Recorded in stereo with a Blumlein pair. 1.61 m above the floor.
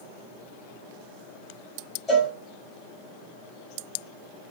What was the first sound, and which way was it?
A cowbell, 15° left.